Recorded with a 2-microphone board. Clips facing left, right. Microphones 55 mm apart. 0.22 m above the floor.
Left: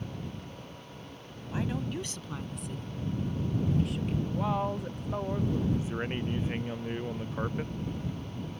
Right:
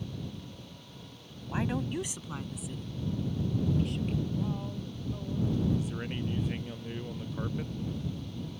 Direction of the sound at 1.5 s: 25° right (ahead or behind).